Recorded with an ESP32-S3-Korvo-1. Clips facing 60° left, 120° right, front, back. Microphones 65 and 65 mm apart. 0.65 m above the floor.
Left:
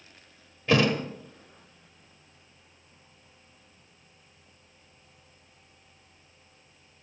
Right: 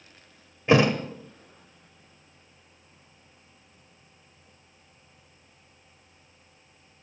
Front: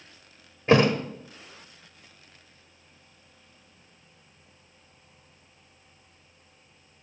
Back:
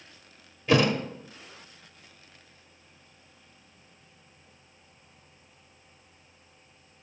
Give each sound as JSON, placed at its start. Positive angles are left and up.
{"t": 0.7, "sound": "a thud", "azimuth_deg": -50, "distance_m": 1.4}